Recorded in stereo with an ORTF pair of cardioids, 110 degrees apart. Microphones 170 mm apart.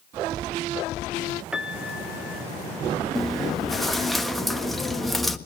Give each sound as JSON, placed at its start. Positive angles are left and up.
{"t": 1.5, "sound": "a piano", "azimuth_deg": -5, "distance_m": 1.2}
{"t": 3.1, "sound": "chewing", "azimuth_deg": 0, "distance_m": 1.3}